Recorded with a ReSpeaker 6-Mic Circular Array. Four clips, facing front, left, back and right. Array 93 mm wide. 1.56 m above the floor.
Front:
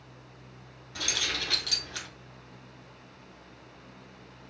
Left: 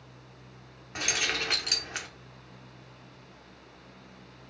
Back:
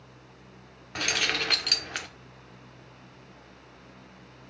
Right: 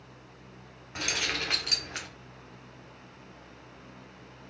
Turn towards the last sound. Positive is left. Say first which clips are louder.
# left 1 dB, back 5 dB
turn(degrees=170)